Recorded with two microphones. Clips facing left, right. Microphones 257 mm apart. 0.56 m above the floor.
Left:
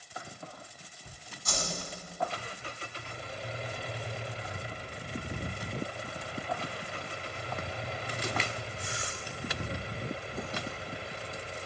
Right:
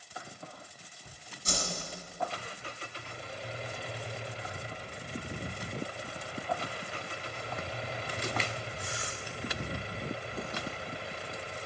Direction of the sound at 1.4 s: 30° right (ahead or behind).